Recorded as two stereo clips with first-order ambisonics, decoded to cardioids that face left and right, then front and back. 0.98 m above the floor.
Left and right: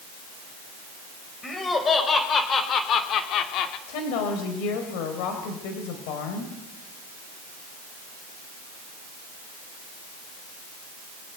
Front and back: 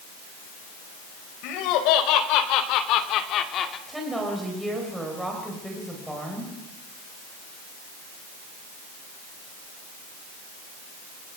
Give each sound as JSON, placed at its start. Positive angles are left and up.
{"t": 1.4, "sound": "laughter", "azimuth_deg": 15, "distance_m": 5.0}
{"t": 3.9, "sound": "a woman speaking", "azimuth_deg": 95, "distance_m": 4.0}